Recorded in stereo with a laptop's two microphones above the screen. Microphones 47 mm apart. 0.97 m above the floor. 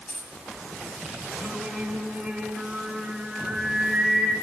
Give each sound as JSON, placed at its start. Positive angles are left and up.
{"t": 0.1, "sound": "a dropped coin", "side_deg": 30, "distance_m": 2.5}
{"t": 1.4, "sound": "singing", "side_deg": -15, "distance_m": 5.0}